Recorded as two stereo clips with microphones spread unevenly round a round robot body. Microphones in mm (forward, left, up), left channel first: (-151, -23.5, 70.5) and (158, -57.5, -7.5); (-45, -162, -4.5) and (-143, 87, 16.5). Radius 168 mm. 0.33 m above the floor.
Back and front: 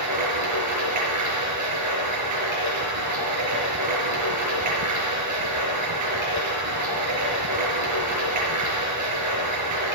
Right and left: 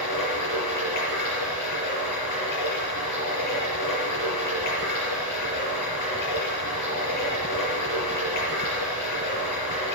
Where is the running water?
35° right, 5 m.